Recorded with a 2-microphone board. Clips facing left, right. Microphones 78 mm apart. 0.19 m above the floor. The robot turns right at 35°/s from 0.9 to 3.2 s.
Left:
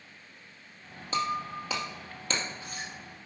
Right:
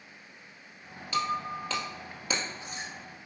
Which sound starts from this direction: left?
Breaking glass, at 1.1 s.